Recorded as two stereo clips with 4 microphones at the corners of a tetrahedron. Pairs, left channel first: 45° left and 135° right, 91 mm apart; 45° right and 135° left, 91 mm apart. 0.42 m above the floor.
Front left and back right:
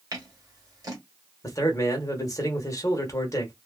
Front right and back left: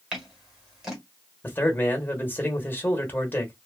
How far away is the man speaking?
About 1.0 m.